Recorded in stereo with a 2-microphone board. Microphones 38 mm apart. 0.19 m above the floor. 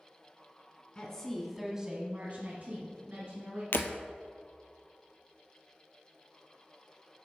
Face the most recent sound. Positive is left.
turn(degrees=80)